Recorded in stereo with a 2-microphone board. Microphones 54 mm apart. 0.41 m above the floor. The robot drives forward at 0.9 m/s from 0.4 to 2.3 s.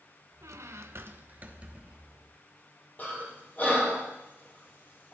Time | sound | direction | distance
0.4 | a squeak | 70° right (ahead or behind) | 0.6 m
3.0 | breathing | 35° left (ahead or behind) | 2.5 m